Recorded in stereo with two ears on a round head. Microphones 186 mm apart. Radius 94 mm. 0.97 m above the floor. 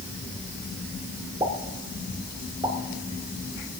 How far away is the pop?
About 1.9 m.